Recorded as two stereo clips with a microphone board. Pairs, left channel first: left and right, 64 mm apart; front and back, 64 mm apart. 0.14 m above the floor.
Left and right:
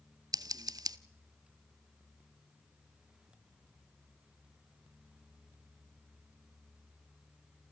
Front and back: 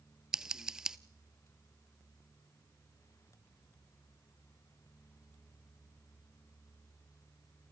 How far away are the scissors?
About 0.6 m.